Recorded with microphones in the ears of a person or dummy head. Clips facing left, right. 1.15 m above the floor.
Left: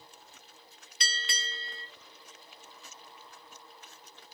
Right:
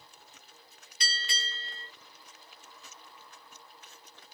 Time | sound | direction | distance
1.0 | a bell | 50° left (ahead or behind) | 1.1 m